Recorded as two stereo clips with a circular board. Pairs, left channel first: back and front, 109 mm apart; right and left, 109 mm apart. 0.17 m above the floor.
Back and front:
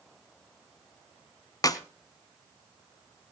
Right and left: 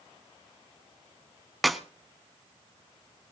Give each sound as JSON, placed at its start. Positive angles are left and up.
{"t": 1.6, "sound": "a clap", "azimuth_deg": 180, "distance_m": 0.9}